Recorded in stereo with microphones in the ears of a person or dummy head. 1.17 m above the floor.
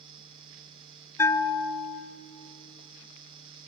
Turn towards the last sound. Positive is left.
turn(degrees=20)  # may be behind; listen again after turning